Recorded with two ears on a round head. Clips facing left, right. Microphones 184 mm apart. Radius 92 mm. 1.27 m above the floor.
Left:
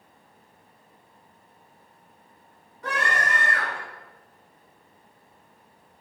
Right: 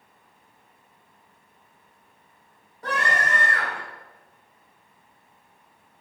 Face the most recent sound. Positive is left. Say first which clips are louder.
# right 1 dB
turn(degrees=-35)  # may be behind; listen again after turning